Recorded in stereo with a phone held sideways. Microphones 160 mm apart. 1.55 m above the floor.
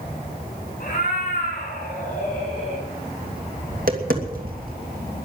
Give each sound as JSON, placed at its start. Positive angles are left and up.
{"t": 0.8, "sound": "a cat meowing", "side_deg": 50, "distance_m": 8.0}
{"t": 3.7, "sound": "tapping", "side_deg": -65, "distance_m": 2.5}